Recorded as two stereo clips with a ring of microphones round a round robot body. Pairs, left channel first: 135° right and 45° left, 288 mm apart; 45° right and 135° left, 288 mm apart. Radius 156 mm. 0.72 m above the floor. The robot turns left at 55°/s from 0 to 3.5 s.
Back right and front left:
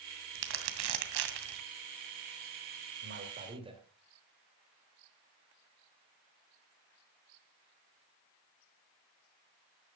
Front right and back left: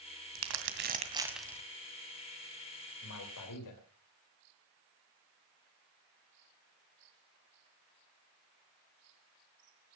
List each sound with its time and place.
0.3 s crumpling: 105° left, 2 m; by 1.6 s 35° left, 2 m
3.0 s a man speaking: straight ahead, 3.5 m; by 3.8 s 30° right, 3.5 m